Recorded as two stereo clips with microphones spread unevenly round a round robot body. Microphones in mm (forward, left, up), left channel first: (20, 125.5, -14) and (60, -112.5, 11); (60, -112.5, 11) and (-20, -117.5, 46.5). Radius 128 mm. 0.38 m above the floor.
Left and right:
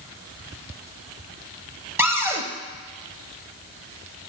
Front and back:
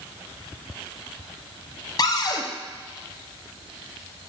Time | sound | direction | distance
2.0 | a cupboard door | straight ahead | 0.8 m